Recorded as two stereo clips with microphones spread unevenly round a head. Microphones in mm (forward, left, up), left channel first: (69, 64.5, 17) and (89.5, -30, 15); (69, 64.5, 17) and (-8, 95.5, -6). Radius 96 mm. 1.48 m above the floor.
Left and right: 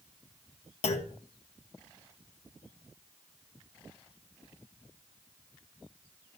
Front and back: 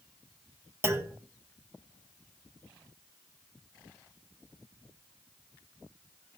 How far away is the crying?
No crying in this recording.